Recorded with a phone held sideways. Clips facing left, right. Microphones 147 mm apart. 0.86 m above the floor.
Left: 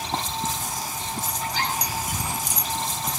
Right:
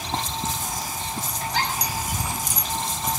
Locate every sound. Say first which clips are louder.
1.4 s a giggle: right 2 dB; 80° right, 9 m